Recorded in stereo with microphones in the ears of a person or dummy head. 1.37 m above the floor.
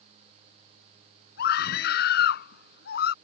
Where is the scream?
65° left (ahead or behind); by 3.1 s 60° left (ahead or behind).